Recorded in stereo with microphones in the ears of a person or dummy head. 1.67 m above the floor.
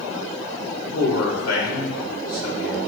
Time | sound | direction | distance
0.9 | a man speaking | 85° left | 2 m